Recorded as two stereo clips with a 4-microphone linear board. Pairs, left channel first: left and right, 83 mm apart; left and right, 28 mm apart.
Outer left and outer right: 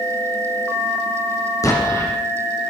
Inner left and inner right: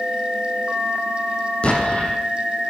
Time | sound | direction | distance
1.6 | an explosion | 40° left (ahead or behind) | 9.5 m